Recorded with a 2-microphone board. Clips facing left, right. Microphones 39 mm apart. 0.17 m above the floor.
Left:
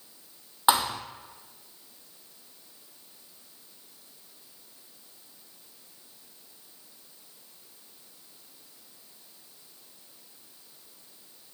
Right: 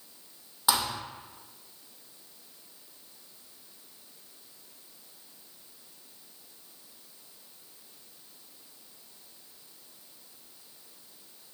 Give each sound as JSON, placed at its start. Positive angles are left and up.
{"t": 0.7, "sound": "a thud", "side_deg": 35, "distance_m": 0.9}